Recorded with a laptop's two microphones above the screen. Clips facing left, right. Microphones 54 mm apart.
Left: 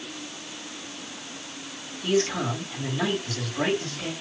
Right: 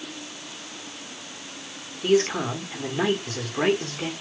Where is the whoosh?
I don't hear a whoosh.